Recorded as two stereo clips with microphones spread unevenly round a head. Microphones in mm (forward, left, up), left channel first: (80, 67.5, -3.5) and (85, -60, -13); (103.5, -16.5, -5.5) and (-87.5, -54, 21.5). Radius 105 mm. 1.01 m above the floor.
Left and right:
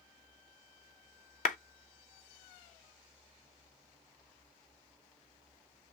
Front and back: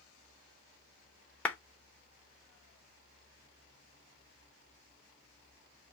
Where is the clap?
90° left, 0.6 m.